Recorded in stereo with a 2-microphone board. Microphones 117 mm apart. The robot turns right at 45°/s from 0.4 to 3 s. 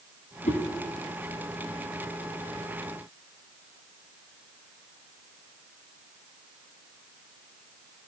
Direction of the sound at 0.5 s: 80° left.